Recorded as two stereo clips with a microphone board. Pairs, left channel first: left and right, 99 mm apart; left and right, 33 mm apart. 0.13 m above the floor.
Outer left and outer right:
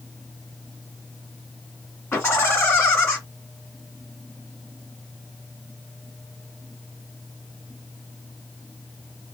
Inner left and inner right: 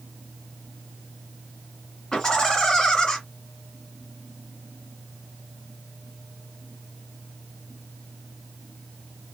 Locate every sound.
2.1 s laughter: 20° left (ahead or behind), 1.6 m